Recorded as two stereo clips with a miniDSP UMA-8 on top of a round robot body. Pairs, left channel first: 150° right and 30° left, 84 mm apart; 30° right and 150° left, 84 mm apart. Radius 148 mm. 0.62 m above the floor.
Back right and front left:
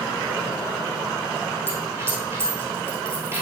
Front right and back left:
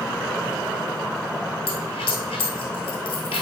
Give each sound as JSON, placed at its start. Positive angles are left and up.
{"t": 1.7, "sound": "a dropped coin", "azimuth_deg": -35, "distance_m": 0.9}